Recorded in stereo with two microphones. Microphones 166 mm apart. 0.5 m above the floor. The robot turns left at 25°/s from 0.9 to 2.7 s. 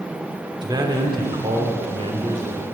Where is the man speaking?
35° right, 1.3 m; by 2.6 s 80° right, 1.3 m.